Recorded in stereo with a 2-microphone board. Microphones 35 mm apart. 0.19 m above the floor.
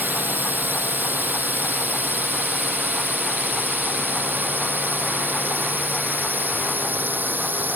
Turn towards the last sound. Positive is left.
turn(degrees=-75)  # may be behind; listen again after turning